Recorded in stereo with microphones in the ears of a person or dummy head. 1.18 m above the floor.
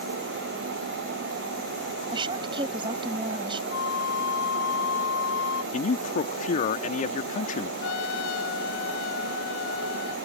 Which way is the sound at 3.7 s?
70° left (ahead or behind).